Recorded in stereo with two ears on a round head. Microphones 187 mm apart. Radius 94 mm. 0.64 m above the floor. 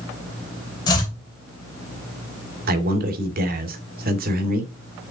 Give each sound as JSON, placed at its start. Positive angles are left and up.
{"t": 0.9, "sound": "chopping", "side_deg": 20, "distance_m": 4.0}
{"t": 2.7, "sound": "a man speaking", "side_deg": -45, "distance_m": 2.0}